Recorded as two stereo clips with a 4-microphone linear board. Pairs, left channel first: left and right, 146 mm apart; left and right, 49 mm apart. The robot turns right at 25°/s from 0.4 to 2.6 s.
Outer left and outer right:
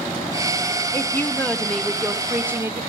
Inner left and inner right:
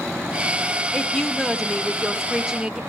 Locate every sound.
0.9 s a woman speaking: 155° left, 1.2 m; by 2.8 s 160° right, 1.2 m